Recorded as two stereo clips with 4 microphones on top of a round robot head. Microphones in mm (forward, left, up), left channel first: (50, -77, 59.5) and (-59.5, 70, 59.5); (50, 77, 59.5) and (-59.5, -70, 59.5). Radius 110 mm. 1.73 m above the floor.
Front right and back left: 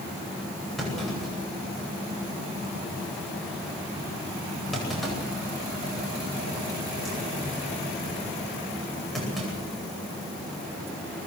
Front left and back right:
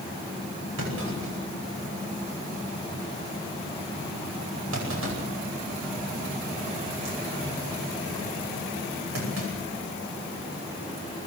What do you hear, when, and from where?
0.8 s a clunk: 145° right, 10 m